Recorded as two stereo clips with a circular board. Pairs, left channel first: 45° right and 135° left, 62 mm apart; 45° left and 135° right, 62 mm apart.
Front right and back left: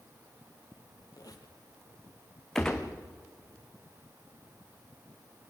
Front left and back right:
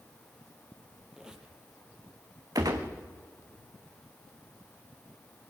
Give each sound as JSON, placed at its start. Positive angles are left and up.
{"t": 1.1, "sound": "a squeak", "azimuth_deg": -55, "distance_m": 3.0}
{"t": 2.5, "sound": "a gunshot", "azimuth_deg": -125, "distance_m": 3.0}